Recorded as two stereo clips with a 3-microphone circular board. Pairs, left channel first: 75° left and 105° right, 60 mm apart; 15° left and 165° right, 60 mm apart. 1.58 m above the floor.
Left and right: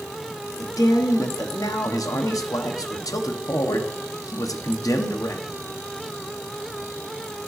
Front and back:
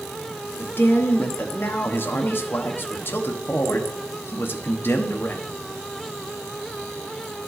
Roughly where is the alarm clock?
No alarm clock in this recording.